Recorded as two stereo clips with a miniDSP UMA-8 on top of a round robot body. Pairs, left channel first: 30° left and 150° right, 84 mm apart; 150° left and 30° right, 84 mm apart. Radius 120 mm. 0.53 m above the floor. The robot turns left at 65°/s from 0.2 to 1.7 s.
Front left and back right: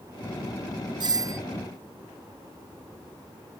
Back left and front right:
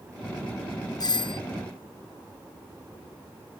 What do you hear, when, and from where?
1.0 s a doorbell: 175° right; by 1.4 s 160° left